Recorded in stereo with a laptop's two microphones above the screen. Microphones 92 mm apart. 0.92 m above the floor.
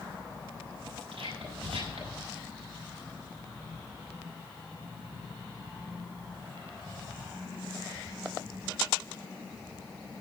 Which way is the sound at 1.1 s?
80° right.